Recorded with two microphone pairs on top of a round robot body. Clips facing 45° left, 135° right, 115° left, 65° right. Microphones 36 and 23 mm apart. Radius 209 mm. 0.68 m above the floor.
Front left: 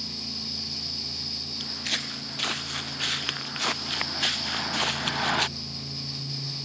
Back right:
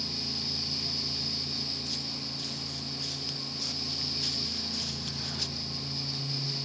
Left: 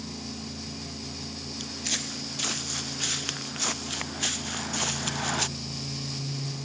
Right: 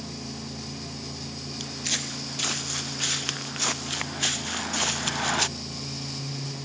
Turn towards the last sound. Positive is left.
turn(degrees=10)